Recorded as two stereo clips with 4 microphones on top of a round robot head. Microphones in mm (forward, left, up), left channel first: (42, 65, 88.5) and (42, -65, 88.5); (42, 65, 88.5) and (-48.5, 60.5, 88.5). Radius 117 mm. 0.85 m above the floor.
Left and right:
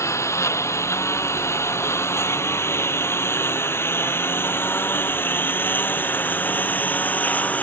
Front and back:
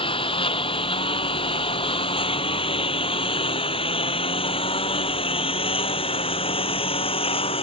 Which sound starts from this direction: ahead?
A lawn mower, at 0.0 s.